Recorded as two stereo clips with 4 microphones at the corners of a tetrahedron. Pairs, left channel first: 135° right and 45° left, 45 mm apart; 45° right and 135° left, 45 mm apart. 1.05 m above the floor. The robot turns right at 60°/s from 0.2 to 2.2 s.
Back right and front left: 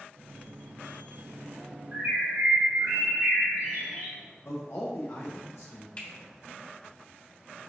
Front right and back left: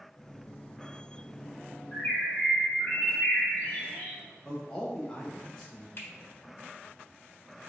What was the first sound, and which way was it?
A bird, straight ahead.